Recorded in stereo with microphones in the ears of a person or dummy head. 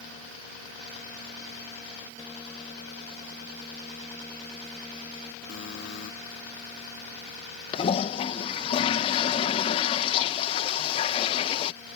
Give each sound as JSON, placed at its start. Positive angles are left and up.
{"t": 5.5, "sound": "a buzzer", "side_deg": 80}
{"t": 7.7, "sound": "a toilet flushing", "side_deg": 35}